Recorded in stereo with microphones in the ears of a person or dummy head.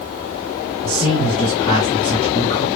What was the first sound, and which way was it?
A man speaking, 15° left (ahead or behind).